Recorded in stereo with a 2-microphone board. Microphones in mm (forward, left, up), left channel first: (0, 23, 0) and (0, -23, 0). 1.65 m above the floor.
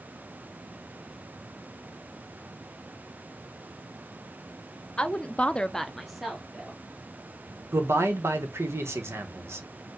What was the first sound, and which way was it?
A woman speaking, 20° left (ahead or behind).